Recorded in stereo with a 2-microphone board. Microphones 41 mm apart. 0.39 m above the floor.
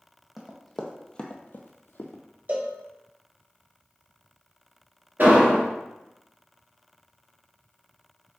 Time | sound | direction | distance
0.4 | running footsteps | 10° right (ahead or behind) | 1.0 m
2.5 | a cowbell | 45° right (ahead or behind) | 0.6 m
5.2 | an explosion | 60° right (ahead or behind) | 2.0 m